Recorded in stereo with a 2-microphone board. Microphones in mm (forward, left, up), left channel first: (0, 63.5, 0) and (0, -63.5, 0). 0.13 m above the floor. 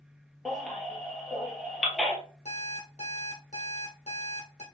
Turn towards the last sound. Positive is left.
turn(degrees=65)  # may be behind; listen again after turning